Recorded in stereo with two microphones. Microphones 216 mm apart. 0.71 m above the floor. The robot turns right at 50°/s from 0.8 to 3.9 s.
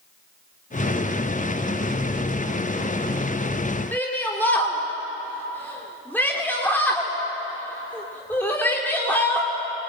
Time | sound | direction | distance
3.9 | a shout | 10° left (ahead or behind) | 2.5 m